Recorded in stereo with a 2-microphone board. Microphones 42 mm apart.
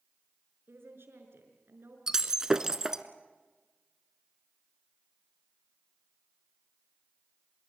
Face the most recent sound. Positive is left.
turn(degrees=-15)  # may be behind; listen again after turning